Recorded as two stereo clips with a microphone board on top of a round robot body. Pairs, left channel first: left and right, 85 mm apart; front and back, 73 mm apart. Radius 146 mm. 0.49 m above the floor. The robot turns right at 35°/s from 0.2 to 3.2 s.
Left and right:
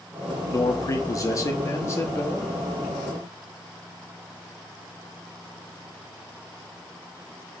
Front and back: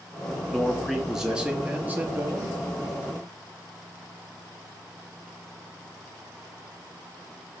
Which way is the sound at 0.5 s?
80° left.